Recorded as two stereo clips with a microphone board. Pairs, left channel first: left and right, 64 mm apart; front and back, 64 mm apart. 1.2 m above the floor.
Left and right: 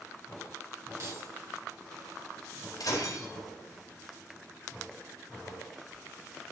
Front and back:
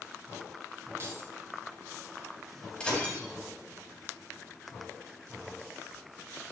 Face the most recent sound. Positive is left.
turn(degrees=75)